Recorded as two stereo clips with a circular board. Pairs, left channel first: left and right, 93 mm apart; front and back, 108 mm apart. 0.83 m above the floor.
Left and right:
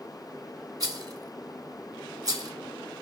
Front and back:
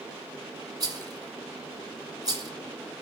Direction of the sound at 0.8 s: 135° right.